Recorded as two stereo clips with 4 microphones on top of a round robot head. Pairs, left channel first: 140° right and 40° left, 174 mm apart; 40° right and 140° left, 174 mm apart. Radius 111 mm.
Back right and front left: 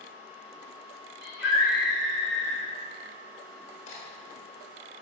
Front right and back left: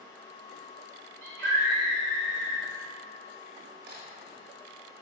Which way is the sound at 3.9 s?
165° left.